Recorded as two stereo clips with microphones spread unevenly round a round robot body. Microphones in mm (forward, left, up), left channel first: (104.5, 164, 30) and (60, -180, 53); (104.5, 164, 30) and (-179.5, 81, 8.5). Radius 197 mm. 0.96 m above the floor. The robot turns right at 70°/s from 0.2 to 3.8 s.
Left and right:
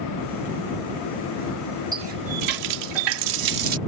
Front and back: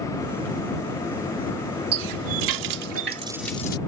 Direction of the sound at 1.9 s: Straight behind.